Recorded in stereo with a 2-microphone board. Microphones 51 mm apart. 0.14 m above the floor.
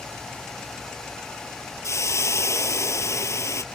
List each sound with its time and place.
1.8 s a hiss: 70° left (ahead or behind)